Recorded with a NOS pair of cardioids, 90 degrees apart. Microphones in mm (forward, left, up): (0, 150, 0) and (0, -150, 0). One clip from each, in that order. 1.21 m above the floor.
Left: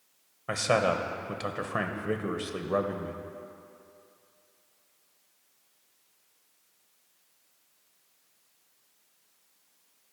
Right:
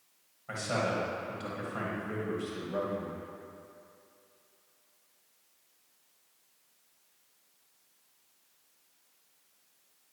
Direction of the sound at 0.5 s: 65° left.